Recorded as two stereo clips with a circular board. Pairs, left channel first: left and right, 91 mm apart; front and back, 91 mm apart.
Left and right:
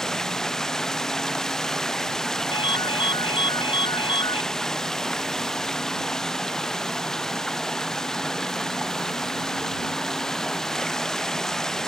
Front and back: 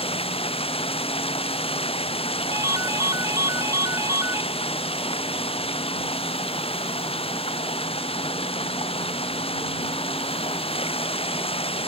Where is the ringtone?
120° left.